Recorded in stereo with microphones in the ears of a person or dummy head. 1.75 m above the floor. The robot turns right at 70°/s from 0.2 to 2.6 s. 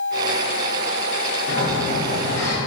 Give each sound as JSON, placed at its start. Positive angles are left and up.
{"t": 1.5, "sound": "a sliding door", "azimuth_deg": 90, "distance_m": 1.0}